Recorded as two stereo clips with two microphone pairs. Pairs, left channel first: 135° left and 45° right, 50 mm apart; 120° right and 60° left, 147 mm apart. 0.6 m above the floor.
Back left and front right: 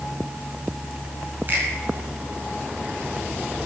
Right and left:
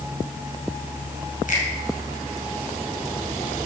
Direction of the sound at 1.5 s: 90° right.